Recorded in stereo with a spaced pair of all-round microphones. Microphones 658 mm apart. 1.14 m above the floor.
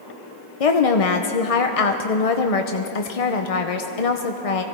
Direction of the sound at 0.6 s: 60° left (ahead or behind).